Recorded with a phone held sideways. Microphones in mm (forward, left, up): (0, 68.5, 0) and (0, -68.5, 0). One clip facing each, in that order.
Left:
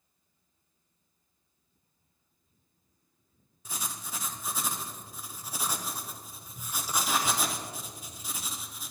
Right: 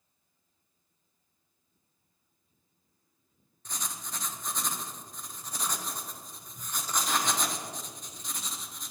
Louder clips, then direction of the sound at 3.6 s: Left 1 dB; 10° left (ahead or behind).